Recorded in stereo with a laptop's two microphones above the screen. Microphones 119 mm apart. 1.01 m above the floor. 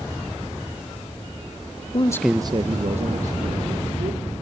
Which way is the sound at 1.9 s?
45° left (ahead or behind).